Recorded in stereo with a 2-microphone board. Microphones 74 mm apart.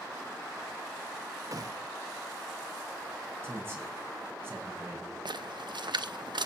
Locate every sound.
1.5 s a gunshot: 50° right (ahead or behind), 1.1 m
3.4 s a man speaking: 30° right (ahead or behind), 8.5 m
5.2 s a splash: 75° right (ahead or behind), 0.9 m